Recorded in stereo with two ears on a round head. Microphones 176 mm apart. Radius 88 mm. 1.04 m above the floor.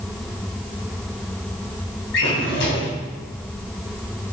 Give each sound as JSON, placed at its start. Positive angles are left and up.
{"t": 2.1, "sound": "a drawer", "side_deg": 70, "distance_m": 3.0}